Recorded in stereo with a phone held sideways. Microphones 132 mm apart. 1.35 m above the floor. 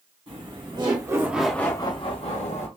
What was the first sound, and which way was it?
Laughter, 45° right (ahead or behind).